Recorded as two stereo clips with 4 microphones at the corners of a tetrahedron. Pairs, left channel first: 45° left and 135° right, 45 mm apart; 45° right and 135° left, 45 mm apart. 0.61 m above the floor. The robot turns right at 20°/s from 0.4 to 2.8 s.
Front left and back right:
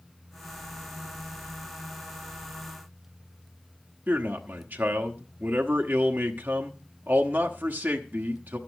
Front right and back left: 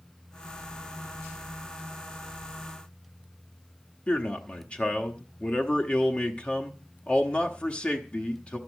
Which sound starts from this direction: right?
A man speaking, at 4.1 s.